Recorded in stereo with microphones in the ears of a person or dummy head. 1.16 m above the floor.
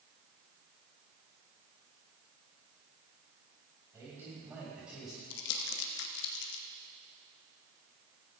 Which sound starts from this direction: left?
Crumpling, at 5.3 s.